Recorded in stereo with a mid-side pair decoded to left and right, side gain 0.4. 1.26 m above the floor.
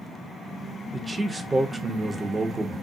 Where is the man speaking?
20° right, 0.9 m.